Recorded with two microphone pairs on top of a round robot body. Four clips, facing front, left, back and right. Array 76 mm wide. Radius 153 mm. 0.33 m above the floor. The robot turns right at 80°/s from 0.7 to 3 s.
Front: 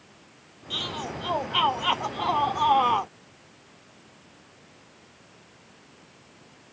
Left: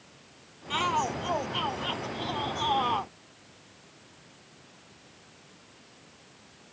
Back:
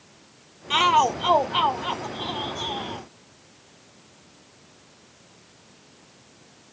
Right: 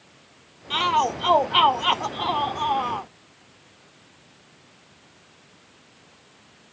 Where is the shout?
175° right; by 3.1 s 10° left.